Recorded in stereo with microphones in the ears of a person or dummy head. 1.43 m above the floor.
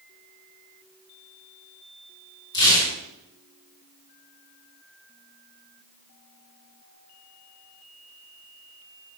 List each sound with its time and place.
2.5 s tearing paper: 20° left (ahead or behind), 5 m